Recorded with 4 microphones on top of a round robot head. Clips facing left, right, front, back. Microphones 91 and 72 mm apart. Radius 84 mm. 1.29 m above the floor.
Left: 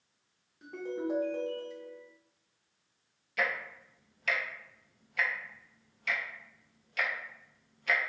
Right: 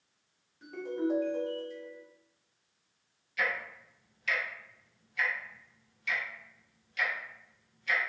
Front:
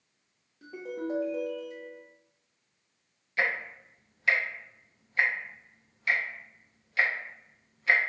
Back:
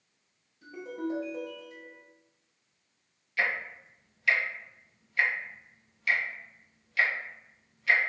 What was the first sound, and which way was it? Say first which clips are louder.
A ringtone: right 3 dB, even; 20° left.